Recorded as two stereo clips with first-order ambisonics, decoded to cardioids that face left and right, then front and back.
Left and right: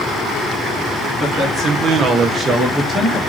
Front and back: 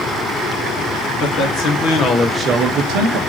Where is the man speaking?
25° right, 1.4 m; by 3.2 s 170° left, 1.0 m.